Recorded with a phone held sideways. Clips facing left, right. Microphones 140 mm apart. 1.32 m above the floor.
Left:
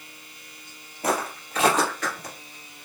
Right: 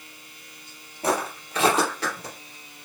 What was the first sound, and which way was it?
Footsteps, 30° right (ahead or behind).